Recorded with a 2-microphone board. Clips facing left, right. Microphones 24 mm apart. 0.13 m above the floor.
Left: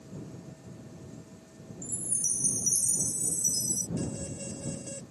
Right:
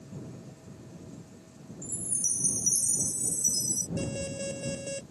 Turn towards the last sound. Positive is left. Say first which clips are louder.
# right 3 dB
turn(degrees=-45)  # may be behind; listen again after turning